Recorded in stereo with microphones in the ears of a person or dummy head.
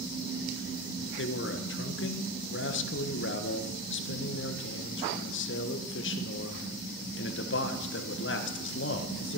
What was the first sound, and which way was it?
A man speaking, 55° left (ahead or behind).